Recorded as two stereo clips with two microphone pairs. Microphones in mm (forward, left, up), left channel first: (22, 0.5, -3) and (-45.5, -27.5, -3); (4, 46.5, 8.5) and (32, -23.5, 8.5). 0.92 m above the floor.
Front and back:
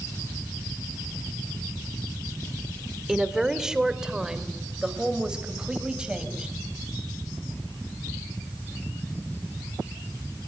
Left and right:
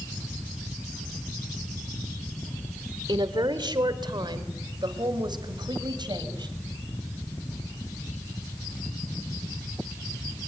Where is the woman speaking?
75° right, 2.5 m; by 6.5 s 80° right, 4.5 m.